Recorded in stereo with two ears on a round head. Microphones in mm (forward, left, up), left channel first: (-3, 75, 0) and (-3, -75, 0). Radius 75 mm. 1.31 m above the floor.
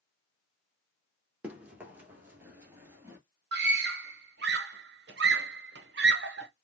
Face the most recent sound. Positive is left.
turn(degrees=-65)  # may be behind; listen again after turning